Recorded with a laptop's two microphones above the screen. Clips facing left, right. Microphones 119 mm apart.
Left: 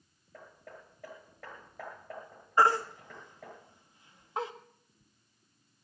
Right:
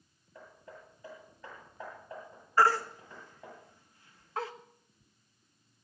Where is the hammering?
80° left, 8 m.